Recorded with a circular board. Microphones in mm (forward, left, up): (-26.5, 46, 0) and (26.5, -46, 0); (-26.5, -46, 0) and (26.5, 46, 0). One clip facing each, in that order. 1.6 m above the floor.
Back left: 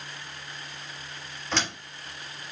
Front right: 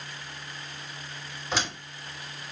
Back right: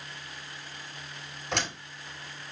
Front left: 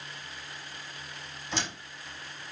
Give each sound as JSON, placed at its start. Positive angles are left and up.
{"t": 1.5, "sound": "a door slam", "azimuth_deg": -140, "distance_m": 4.5}